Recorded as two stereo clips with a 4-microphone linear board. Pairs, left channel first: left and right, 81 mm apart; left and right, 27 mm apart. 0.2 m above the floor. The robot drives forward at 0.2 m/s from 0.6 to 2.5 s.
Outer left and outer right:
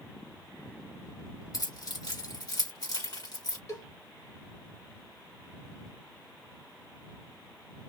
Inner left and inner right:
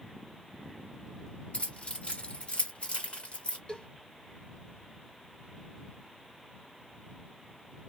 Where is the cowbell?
40° left (ahead or behind), 1.5 m.